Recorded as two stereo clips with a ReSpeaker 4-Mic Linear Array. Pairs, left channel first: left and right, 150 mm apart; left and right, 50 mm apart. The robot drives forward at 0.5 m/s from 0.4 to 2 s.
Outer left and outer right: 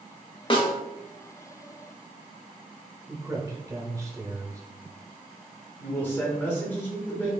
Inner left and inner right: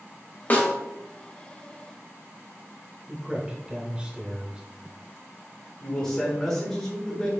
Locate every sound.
0.5 s a snare drum: 35° left (ahead or behind), 1.0 m; by 0.7 s 40° left (ahead or behind), 0.9 m
3.1 s a man speaking: 20° right (ahead or behind), 0.8 m
5.8 s a man speaking: 15° left (ahead or behind), 1.2 m